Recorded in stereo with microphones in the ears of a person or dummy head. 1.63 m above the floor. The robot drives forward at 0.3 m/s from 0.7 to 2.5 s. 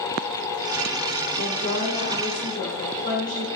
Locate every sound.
1.4 s a woman speaking: 55° left (ahead or behind), 1.1 m; by 3.5 s 40° left (ahead or behind), 1.3 m